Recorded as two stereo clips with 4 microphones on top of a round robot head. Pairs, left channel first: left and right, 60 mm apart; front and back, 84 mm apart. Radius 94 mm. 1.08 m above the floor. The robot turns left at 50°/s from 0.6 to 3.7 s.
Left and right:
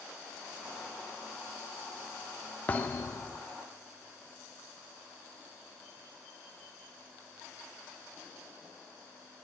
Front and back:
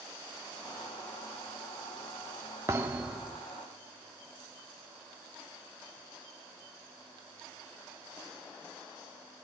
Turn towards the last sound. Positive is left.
turn(degrees=85)